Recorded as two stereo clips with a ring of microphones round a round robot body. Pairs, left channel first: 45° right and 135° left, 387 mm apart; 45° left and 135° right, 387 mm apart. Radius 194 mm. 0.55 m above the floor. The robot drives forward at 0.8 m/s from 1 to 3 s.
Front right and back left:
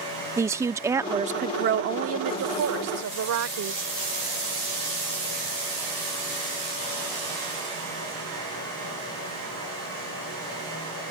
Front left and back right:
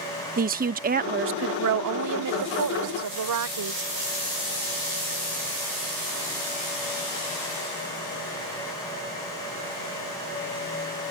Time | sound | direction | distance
0.4 | a woman speaking | 155° right | ?